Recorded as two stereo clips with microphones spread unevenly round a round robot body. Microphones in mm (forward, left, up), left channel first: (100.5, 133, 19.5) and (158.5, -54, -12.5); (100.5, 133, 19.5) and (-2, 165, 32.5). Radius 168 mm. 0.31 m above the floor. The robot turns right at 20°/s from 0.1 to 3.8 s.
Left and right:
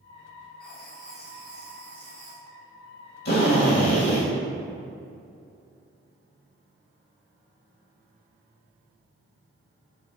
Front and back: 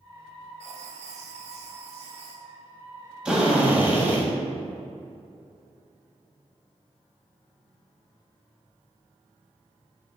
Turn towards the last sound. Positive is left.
turn(degrees=90)